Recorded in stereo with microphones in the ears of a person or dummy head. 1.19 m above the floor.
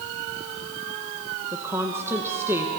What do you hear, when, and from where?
1.5 s a woman speaking: 15° right (ahead or behind), 1.1 m